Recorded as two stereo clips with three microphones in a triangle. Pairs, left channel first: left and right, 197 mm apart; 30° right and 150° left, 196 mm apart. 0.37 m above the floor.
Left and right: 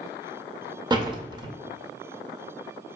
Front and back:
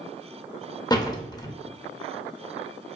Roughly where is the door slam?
Ahead right.